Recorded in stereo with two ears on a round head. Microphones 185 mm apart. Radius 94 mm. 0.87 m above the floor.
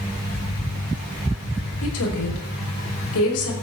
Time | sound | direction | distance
1.8 | a woman speaking | 80° left | 5 m